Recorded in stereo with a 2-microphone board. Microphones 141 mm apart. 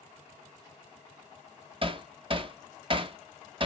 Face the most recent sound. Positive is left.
turn(degrees=-40)  # may be behind; listen again after turning